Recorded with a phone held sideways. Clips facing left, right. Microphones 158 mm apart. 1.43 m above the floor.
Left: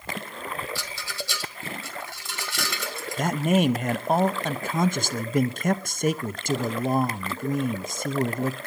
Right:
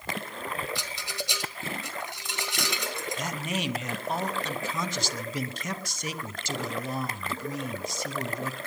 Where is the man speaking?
55° left (ahead or behind), 0.8 m.